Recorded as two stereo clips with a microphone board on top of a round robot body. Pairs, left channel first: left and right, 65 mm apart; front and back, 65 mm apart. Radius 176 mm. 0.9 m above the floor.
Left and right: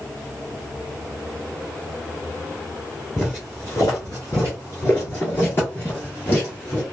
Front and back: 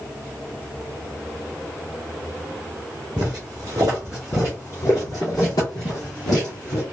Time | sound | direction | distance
3.2 | footsteps | straight behind | 1.0 m